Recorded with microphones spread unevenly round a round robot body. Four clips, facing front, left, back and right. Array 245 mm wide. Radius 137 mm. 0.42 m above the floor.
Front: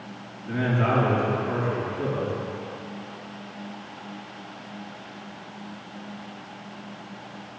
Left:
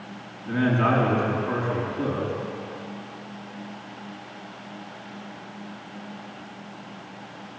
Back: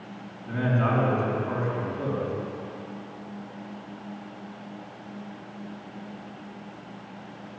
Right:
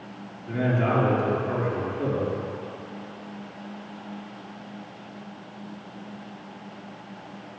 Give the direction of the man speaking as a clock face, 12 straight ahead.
9 o'clock.